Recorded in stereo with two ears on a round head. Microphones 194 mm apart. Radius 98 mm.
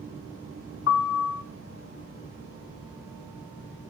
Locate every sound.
0.9 s a piano: 65° left (ahead or behind), 0.8 m